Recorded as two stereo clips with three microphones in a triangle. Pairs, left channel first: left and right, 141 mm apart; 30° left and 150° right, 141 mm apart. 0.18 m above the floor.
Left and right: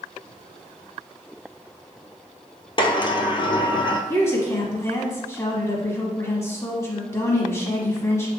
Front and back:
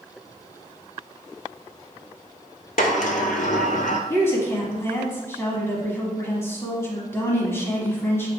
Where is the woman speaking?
65° left, 1.0 m.